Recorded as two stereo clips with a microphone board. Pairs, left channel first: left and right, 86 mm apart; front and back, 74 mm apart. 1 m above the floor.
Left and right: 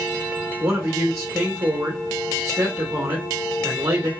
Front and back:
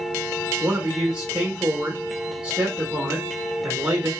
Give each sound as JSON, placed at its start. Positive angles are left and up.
{"t": 0.6, "sound": "a man speaking", "azimuth_deg": -115, "distance_m": 1.0}